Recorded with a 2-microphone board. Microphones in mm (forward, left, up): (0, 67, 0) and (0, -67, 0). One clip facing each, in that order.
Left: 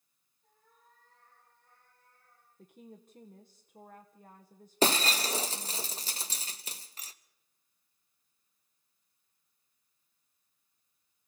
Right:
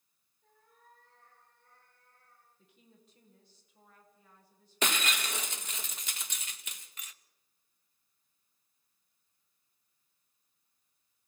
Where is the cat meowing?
70° right (ahead or behind), 9 m; by 2.5 s 80° right, 8.5 m.